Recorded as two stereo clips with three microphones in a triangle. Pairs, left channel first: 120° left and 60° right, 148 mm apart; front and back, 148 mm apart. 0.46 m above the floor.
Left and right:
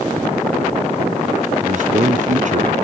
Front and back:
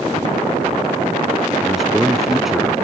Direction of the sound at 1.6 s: 90° right.